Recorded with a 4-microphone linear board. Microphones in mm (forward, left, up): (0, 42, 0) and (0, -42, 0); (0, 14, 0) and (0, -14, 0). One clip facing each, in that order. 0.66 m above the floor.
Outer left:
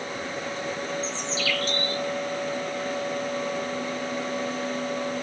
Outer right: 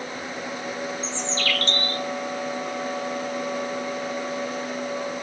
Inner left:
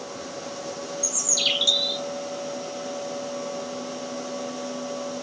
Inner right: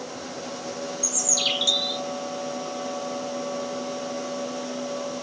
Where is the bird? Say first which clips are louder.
Outer right 1 dB, inner left 1 dB; 10° left (ahead or behind), 0.9 m.